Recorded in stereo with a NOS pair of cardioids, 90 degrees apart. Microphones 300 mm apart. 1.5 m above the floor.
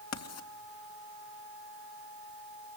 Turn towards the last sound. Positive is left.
turn(degrees=60)